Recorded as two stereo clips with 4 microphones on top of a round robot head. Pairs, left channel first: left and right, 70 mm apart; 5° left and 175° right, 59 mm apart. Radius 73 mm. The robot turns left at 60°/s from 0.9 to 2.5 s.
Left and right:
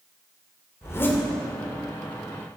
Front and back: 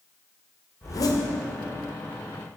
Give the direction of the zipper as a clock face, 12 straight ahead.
11 o'clock.